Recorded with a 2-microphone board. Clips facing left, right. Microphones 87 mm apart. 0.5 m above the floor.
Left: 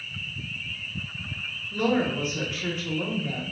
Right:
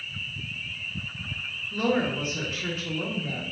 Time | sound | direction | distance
1.7 | a woman speaking | centre (ahead or behind) | 0.8 m